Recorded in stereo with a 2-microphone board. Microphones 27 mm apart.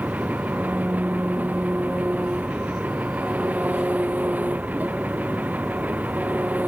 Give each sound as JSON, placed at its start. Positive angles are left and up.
{"t": 0.0, "sound": "an engine running", "side_deg": -85}